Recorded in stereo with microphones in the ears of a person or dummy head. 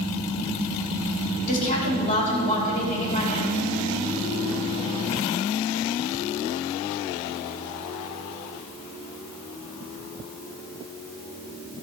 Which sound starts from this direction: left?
A woman speaking, at 1.5 s.